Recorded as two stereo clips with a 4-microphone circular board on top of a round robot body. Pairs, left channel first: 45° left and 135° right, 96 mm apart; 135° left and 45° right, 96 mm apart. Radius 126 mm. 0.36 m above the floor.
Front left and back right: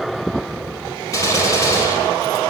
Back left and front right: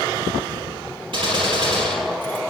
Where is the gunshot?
10° right, 3.5 m.